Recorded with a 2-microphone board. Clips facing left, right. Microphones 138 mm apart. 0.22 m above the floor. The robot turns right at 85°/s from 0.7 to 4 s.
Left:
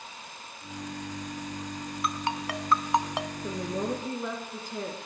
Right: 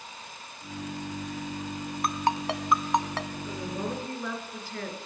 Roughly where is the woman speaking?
Behind left.